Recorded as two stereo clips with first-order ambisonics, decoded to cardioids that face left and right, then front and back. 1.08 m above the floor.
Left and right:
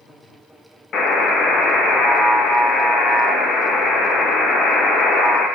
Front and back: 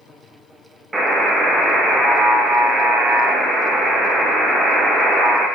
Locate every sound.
0.9 s a buzzer: 110° left, 0.6 m